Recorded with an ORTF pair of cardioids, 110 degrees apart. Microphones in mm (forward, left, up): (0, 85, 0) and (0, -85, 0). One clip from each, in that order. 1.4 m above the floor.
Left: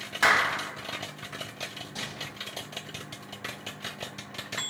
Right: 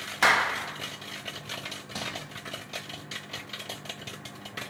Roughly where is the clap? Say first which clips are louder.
Even; ahead.